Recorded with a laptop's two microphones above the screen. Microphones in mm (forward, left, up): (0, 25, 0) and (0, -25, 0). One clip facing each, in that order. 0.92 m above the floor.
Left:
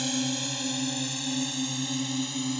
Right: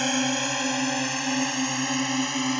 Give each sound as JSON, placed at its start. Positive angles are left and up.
{"t": 0.0, "sound": "a drone", "side_deg": -50}